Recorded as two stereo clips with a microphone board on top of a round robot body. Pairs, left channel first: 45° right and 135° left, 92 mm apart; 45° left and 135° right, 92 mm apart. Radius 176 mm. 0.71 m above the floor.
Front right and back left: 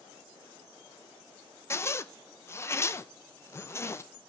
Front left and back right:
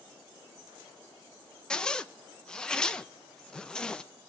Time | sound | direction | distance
1.7 | a zipper | 25° right | 0.8 m